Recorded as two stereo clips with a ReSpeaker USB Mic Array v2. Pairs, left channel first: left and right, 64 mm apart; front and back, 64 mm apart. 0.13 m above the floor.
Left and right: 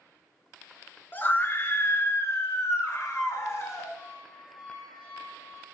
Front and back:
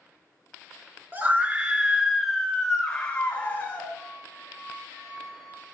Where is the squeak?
100° left, 4 m.